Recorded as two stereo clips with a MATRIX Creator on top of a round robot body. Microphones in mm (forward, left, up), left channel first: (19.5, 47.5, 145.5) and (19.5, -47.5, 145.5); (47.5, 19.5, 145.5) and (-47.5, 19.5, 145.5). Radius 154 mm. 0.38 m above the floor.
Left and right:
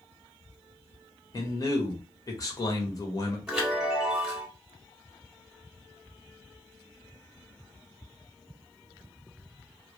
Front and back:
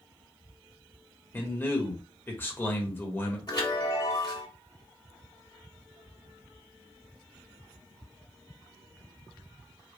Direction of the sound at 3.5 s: 10° right.